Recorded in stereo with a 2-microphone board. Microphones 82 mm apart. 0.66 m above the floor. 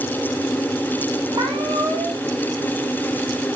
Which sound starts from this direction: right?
A cat meowing, at 1.3 s.